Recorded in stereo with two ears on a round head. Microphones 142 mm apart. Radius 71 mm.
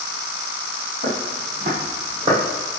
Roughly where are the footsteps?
Right.